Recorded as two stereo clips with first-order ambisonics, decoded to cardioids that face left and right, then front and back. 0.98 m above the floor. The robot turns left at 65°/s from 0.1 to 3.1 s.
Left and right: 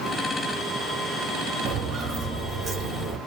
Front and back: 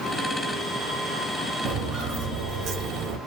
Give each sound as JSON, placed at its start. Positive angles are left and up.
{"t": 1.6, "sound": "footsteps", "azimuth_deg": -130, "distance_m": 1.7}